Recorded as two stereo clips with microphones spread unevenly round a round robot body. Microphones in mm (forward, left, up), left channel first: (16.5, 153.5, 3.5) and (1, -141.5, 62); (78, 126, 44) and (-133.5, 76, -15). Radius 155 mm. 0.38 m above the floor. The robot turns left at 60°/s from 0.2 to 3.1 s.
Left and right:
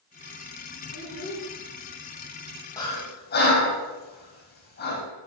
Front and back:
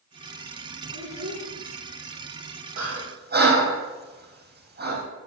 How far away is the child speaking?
About 5 m.